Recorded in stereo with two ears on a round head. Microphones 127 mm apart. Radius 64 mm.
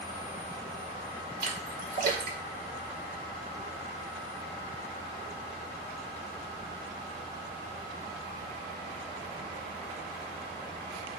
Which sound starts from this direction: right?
A splash, at 1.4 s.